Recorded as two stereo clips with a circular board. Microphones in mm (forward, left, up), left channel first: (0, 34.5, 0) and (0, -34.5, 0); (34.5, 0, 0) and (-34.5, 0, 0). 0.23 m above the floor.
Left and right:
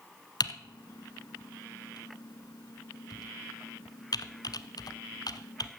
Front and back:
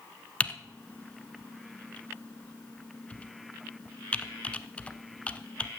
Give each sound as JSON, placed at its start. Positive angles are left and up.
{"t": 0.4, "sound": "typing on a keyboard", "azimuth_deg": 70, "distance_m": 0.8}